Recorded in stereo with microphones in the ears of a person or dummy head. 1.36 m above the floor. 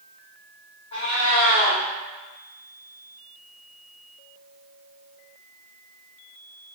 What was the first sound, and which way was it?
A cat meowing, 30° left (ahead or behind).